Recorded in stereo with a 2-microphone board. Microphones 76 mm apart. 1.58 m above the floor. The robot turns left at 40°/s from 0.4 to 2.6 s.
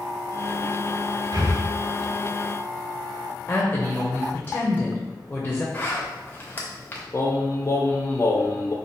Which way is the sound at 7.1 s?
35° left (ahead or behind).